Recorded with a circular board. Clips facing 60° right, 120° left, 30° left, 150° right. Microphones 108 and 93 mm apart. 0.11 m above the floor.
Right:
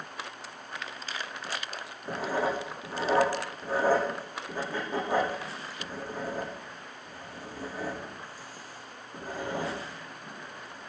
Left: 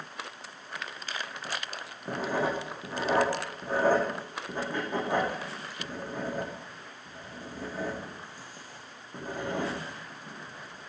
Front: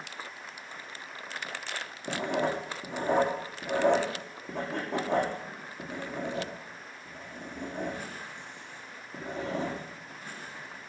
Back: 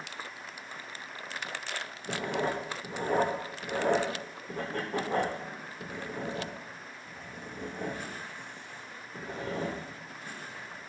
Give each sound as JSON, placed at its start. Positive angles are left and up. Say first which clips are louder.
{"t": 2.1, "sound": "writing", "louder": "even, front 2 dB", "azimuth_deg": 45, "distance_m": 8.5}